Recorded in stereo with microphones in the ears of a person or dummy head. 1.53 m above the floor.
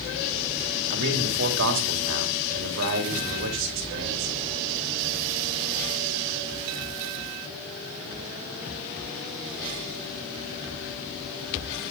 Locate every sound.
0.9 s a man speaking: 65° right (ahead or behind), 3 m